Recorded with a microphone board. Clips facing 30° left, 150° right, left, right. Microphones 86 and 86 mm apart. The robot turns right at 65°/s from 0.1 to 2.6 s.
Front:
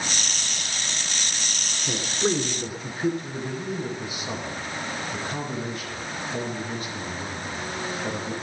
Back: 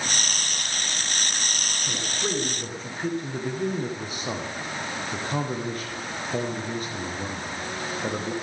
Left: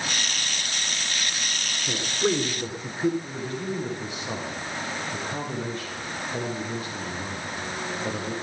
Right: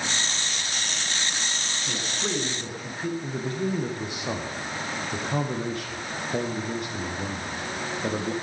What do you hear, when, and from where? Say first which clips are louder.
1.9 s a man speaking: front 5 dB, left 7 dB; 50° left, 1.8 m; by 3.1 s 100° left, 1.8 m
3.2 s a man speaking: back 3 dB, right 3 dB; 105° right, 4.5 m